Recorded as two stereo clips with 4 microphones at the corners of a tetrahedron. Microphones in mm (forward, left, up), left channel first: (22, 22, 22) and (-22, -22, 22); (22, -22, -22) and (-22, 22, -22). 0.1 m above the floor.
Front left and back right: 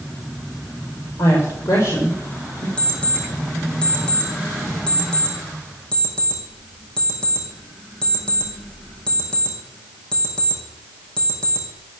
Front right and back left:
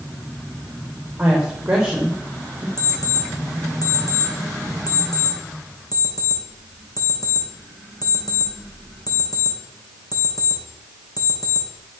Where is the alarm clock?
30° right, 4 m.